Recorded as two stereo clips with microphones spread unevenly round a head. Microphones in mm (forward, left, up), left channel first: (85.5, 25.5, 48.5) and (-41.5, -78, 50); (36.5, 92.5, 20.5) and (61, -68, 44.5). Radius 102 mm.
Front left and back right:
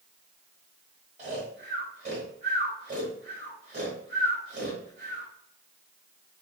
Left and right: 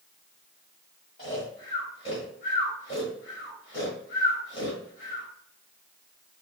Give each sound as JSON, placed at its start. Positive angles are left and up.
{"t": 1.2, "sound": "snoring", "azimuth_deg": 165, "distance_m": 1.8}